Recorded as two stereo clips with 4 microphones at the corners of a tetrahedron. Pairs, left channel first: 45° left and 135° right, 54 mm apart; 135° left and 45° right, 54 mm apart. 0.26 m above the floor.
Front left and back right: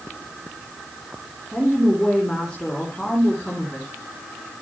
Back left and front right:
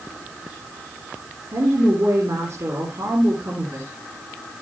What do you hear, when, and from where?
1.5 s a woman speaking: 30° right, 3.5 m